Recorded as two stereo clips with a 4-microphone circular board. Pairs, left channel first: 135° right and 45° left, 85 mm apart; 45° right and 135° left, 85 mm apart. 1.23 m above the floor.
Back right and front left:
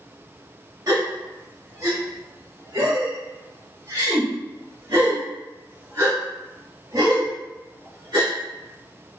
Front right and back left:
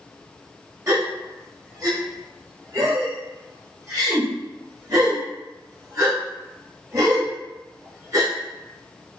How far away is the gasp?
About 1.1 m.